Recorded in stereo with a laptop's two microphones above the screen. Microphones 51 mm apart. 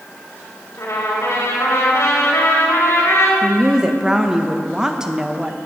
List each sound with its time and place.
0.8 s a trumpet: 65° left (ahead or behind), 2.5 m
3.4 s a woman speaking: 15° right (ahead or behind), 0.8 m